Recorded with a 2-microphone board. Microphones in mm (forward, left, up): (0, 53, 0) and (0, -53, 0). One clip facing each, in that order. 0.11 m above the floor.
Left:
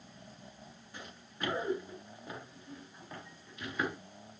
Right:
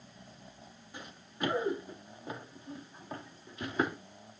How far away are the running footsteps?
About 5 m.